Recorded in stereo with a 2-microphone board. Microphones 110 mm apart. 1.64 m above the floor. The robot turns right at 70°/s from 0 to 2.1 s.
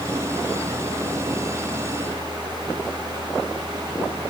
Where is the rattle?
No rattle in this recording.